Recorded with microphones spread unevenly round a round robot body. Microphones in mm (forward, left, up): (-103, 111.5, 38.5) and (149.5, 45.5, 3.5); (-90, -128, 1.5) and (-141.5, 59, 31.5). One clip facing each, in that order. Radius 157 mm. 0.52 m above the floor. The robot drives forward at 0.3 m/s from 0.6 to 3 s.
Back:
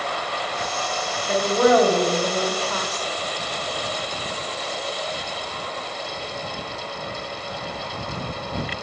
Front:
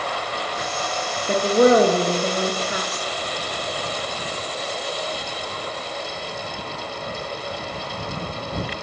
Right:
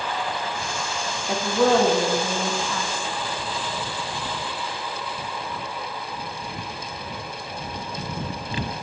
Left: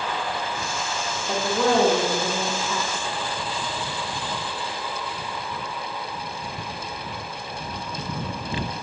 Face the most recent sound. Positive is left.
turn(degrees=5)